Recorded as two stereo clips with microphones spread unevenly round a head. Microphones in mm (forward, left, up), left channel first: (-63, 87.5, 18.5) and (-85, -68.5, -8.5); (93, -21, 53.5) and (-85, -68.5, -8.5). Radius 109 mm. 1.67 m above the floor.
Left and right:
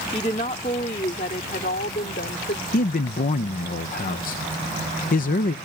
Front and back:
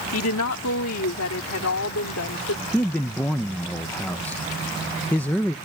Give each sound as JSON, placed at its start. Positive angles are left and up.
{"t": 0.1, "sound": "a woman speaking", "azimuth_deg": 15}
{"t": 2.7, "sound": "a man speaking", "azimuth_deg": 90}